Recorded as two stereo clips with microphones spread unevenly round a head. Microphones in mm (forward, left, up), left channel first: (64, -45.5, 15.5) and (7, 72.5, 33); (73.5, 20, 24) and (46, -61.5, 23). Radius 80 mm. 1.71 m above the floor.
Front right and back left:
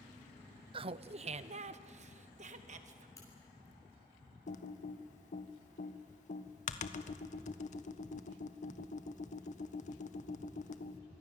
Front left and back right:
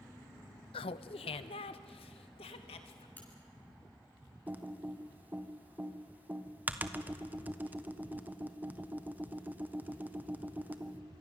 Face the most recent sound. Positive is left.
turn(degrees=-40)